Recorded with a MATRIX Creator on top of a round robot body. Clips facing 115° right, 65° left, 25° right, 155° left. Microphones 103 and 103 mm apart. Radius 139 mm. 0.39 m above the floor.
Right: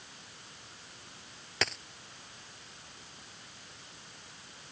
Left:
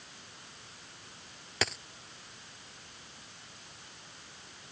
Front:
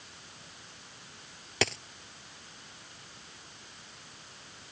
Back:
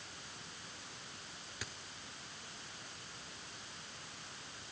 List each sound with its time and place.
1.6 s a dropped coin: 20° right